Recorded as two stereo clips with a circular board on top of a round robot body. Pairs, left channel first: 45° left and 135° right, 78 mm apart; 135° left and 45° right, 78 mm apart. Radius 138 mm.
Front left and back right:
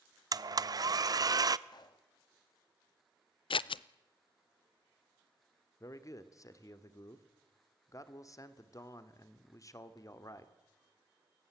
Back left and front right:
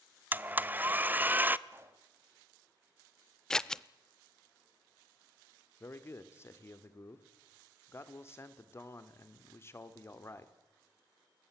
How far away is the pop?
About 1.7 m.